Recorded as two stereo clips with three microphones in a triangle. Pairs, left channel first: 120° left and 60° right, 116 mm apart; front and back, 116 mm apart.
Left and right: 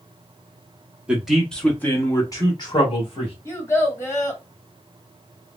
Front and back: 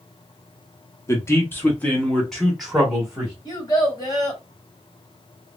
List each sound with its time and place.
1.1 s a man speaking: 5° left, 0.9 m; by 3.4 s 100° left, 1.4 m
3.5 s a child speaking: 55° left, 1.6 m